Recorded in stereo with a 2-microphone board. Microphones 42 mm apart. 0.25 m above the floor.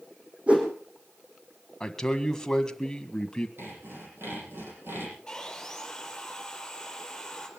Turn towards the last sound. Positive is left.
turn(degrees=10)  # may be behind; listen again after turning